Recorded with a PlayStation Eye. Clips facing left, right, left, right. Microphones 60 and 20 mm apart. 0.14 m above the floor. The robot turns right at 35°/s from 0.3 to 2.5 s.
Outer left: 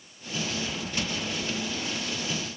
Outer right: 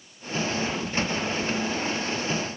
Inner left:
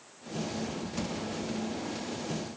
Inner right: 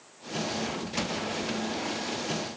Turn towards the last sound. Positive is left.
No sound to turn to.